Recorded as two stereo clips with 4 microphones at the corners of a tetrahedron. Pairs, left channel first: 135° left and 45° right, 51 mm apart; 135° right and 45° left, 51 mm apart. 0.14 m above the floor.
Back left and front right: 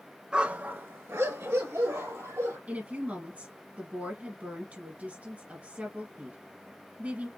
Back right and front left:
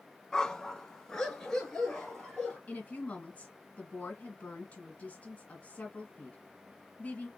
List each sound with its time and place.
0.3 s a dog barking: 80° right, 0.6 m; by 2.6 s 55° right, 2 m
2.7 s a woman speaking: 90° right, 2.0 m